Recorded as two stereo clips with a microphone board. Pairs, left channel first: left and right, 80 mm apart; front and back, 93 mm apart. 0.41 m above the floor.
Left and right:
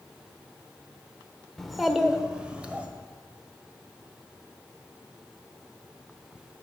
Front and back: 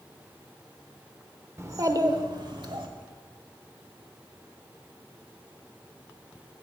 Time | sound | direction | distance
1.6 | a child speaking | 170° left | 0.7 m